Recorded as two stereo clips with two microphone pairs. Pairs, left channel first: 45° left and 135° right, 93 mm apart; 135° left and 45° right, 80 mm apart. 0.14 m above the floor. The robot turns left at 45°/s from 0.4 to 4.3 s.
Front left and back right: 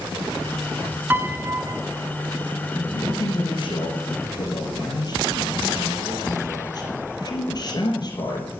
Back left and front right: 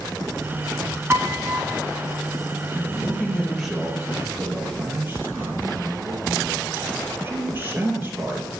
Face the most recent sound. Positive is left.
turn(degrees=15)